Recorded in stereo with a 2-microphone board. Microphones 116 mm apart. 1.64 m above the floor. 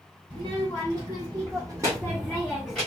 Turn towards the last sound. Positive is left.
turn(degrees=-10)  # may be behind; listen again after turning